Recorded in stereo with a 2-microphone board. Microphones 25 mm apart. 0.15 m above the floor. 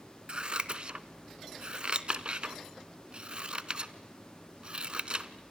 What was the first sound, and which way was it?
Scissors, 35° right (ahead or behind).